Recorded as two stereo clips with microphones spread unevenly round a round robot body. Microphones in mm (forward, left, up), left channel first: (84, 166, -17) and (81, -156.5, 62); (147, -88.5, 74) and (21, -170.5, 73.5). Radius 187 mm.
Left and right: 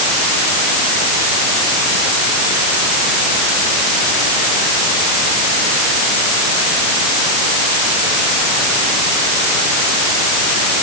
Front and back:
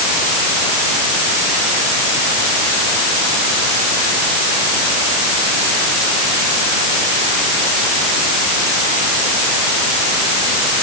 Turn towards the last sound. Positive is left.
No sound to turn to.